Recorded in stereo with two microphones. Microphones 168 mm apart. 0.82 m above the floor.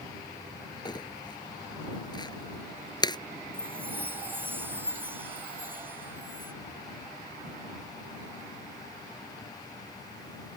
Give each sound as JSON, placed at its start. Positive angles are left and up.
{"t": 0.8, "sound": "crumpling", "side_deg": 25}
{"t": 3.5, "sound": "a chime", "side_deg": -10}